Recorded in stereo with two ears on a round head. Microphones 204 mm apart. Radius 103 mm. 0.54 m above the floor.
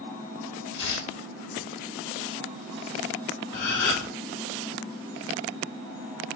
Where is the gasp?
45° left (ahead or behind), 2 m.